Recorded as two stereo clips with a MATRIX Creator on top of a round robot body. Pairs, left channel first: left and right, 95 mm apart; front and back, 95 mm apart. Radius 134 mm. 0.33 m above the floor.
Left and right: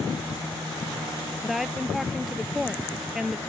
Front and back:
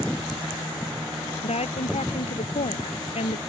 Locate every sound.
1.4 s a woman speaking: straight ahead